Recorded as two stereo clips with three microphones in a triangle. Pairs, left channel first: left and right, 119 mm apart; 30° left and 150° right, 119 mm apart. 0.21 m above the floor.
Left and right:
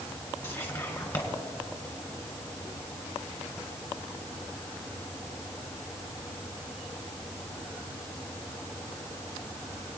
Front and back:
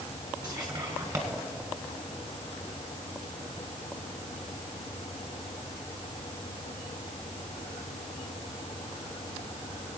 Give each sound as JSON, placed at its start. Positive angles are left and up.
{"t": 0.4, "sound": "whispering", "azimuth_deg": 140, "distance_m": 1.7}